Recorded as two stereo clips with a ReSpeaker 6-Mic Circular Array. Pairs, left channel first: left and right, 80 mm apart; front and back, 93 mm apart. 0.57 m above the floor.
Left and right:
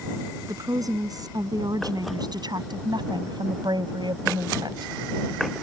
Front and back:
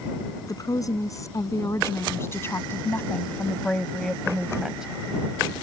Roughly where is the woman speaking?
Ahead right.